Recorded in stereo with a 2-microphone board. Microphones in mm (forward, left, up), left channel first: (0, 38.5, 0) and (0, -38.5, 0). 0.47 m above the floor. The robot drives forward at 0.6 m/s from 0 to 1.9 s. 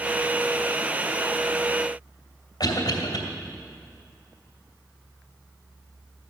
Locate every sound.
2.6 s a cough: 60° left (ahead or behind), 2.5 m